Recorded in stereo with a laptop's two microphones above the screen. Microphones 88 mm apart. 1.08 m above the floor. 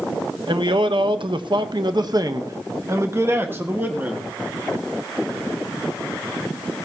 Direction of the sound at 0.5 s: 60° right (ahead or behind).